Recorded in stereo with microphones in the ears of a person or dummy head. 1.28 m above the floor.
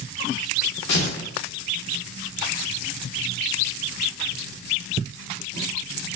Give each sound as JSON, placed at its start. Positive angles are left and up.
{"t": 0.9, "sound": "tearing paper", "side_deg": 60, "distance_m": 1.2}